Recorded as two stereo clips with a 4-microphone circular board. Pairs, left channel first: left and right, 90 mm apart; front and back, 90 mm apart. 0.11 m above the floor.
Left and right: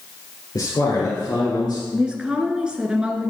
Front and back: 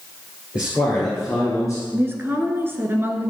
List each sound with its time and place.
0.6 s a man speaking: 105° left, 2.5 m; by 1.8 s 80° left, 3 m
1.9 s a woman speaking: 155° right, 1.2 m